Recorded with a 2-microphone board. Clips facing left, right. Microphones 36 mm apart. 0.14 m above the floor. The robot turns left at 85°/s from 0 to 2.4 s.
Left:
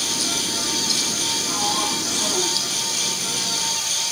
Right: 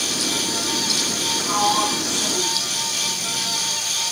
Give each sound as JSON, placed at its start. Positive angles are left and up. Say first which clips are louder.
{"t": 1.4, "sound": "a sliding door", "louder": "right 7 dB", "azimuth_deg": -120}